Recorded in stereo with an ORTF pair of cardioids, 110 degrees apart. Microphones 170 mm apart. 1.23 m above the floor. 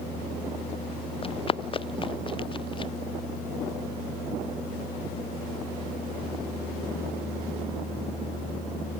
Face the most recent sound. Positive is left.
turn(degrees=30)